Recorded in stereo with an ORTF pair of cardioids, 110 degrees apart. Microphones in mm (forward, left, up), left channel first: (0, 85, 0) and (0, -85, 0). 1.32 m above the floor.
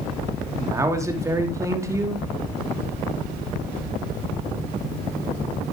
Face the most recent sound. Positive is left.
turn(degrees=-20)